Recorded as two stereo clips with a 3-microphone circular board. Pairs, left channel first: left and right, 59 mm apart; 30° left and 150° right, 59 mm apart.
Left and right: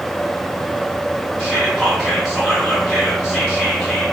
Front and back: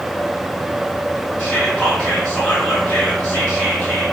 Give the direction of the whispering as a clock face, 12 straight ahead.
12 o'clock.